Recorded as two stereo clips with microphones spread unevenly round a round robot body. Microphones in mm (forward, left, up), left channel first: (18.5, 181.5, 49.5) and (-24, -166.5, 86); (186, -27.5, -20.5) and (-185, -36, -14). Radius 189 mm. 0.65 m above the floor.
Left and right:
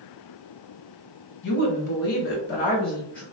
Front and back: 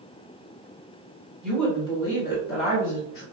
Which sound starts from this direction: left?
A woman speaking, at 1.4 s.